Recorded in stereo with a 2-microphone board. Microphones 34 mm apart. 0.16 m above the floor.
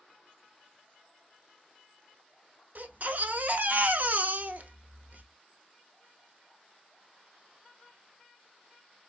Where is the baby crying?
55° right (ahead or behind), 0.6 m.